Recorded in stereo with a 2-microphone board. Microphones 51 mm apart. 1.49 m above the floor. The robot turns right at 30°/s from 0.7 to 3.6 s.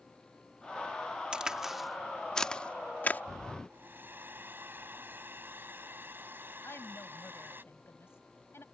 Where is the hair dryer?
45° right (ahead or behind).